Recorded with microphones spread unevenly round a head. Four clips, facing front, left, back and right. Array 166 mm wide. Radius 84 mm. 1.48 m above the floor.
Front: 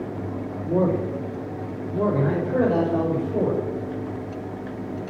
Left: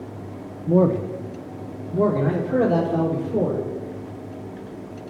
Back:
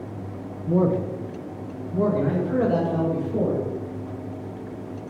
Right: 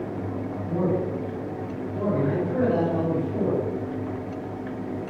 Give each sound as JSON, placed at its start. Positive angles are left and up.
{"t": 0.7, "sound": "a man speaking", "azimuth_deg": 90, "distance_m": 0.9}